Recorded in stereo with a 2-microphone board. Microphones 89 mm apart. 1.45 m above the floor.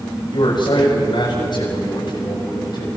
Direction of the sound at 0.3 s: 60° left (ahead or behind).